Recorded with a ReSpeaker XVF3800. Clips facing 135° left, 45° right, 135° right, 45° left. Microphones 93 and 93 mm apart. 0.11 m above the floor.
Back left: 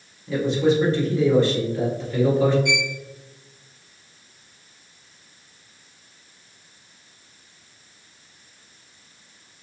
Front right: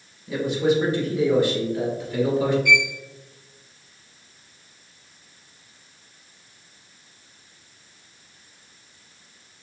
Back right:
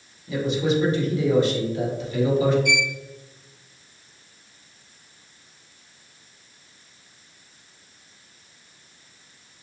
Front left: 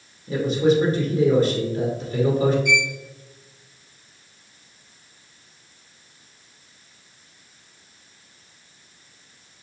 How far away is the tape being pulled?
I don't hear tape being pulled.